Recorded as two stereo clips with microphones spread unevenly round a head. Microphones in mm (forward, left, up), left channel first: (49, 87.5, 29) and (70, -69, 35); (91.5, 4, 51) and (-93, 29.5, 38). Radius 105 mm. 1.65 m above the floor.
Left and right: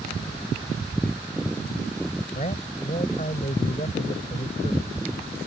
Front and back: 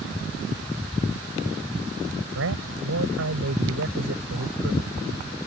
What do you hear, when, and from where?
2.4 s a man speaking: 160° left